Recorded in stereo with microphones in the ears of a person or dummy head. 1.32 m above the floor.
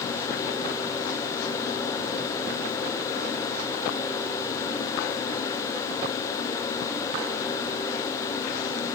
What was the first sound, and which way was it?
Only background noise.